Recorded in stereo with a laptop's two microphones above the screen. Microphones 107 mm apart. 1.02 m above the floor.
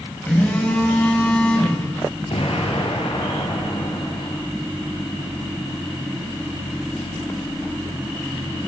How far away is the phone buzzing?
About 5 m.